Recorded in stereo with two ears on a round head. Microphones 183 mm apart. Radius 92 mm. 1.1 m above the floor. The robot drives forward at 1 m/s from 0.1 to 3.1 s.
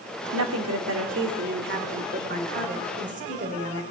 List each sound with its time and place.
0.3 s a woman speaking: 75° right (ahead or behind), 2.5 m; by 3.8 s 35° right (ahead or behind), 4 m